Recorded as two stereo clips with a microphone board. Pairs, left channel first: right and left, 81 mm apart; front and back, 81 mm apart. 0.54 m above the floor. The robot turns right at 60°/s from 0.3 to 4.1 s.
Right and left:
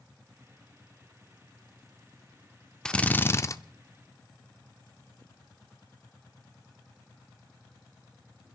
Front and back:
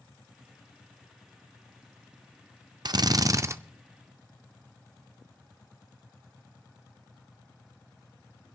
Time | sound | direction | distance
2.9 | a drill | 170° right | 0.5 m